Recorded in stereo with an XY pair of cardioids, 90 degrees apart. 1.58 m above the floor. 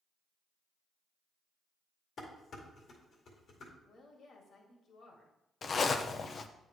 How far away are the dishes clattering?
About 2 m.